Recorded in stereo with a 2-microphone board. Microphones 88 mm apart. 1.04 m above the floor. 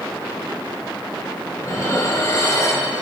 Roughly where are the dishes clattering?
Left.